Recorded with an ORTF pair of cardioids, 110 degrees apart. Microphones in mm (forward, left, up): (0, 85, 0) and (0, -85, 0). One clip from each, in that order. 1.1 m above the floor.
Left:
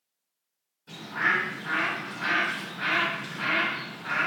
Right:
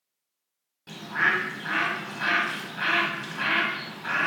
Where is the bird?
65° right, 1.0 m.